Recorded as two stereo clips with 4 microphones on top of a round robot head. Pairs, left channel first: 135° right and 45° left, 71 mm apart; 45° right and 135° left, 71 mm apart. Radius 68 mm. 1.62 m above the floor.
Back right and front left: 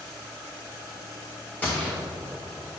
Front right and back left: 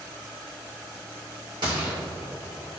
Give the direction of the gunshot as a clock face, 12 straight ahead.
7 o'clock.